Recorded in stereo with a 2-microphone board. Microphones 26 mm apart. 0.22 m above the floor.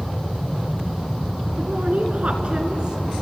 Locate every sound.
1.6 s a woman speaking: 55° right (ahead or behind), 2.5 m; by 3.1 s 30° right (ahead or behind), 3 m